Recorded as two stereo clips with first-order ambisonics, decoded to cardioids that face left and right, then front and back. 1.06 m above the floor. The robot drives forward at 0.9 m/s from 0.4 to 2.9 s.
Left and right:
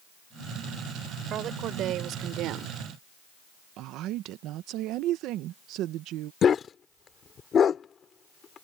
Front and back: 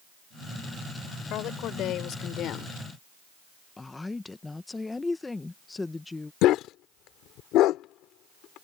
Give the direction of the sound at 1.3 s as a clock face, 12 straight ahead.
1 o'clock.